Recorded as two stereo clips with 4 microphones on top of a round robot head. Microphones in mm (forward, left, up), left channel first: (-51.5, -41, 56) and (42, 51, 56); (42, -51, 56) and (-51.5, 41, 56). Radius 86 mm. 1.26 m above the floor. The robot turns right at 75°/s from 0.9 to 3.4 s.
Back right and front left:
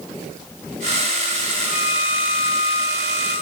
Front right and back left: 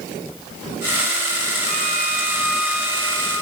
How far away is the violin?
About 7 m.